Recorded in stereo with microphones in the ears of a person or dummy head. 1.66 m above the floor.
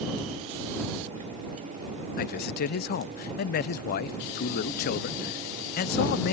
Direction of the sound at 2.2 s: 45° left (ahead or behind).